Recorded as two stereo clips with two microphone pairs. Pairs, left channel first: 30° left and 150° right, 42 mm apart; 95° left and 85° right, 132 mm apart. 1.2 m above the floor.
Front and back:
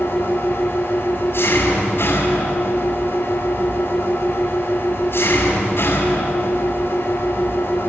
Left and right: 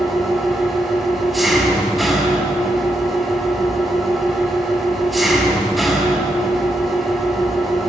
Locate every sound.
0.0 s an engine running: 5° left, 5 m